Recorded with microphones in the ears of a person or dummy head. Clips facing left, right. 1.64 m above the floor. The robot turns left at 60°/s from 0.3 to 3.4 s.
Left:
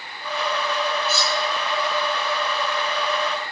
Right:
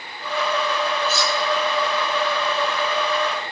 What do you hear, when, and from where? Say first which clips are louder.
1.1 s cutlery clinking: right 2 dB; 50° left (ahead or behind), 6.5 m; by 1.4 s 35° left (ahead or behind), 6.5 m